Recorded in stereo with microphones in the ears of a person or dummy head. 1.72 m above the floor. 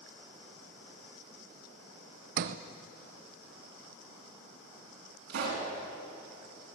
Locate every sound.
2.4 s a sliding door: 50° right (ahead or behind), 0.9 m
5.3 s a pop: 65° right (ahead or behind), 7.5 m